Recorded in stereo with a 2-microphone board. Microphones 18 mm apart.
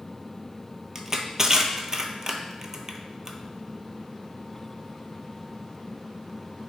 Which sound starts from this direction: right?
Crushing, at 0.9 s.